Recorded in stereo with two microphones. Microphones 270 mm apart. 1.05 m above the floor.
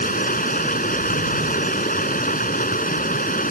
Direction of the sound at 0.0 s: 35° left (ahead or behind).